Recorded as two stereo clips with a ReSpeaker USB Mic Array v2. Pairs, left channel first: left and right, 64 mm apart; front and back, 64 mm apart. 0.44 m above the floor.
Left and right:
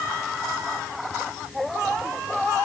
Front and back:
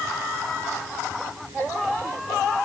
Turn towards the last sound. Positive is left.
No sound to turn to.